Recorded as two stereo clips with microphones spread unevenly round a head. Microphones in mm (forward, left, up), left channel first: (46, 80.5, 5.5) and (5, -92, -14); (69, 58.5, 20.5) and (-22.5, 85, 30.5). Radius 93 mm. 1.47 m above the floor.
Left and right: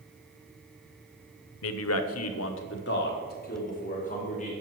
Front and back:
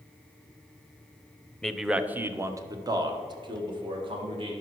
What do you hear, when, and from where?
1.6 s a man speaking: 65° left, 0.7 m; by 4.5 s 135° left, 2 m